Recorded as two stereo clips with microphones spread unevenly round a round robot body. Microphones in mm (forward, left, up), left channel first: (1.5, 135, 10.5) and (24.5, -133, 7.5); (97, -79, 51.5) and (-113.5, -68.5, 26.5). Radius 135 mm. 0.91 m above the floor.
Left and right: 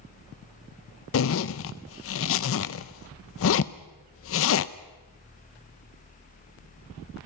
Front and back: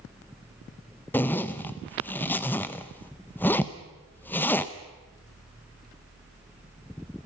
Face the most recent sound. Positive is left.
turn(degrees=85)